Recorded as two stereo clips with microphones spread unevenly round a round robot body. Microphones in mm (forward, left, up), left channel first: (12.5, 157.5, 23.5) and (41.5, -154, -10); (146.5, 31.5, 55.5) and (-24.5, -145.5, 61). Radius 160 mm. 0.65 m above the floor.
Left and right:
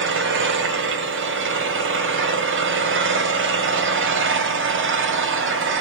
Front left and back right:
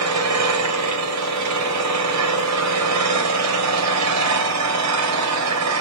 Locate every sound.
0.0 s an engine running: 140° right, 3 m